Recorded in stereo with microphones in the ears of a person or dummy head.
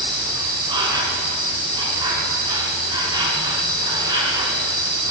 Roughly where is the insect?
Right.